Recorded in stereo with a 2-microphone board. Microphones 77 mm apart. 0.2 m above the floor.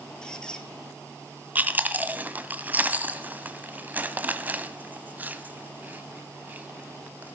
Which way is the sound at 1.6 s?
25° right (ahead or behind).